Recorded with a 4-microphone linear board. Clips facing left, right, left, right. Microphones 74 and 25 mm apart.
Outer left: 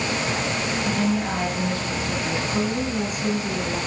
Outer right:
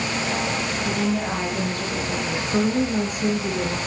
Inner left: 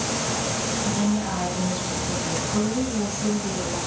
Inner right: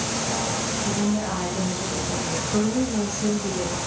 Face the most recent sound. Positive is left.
turn(degrees=-45)  # may be behind; listen again after turning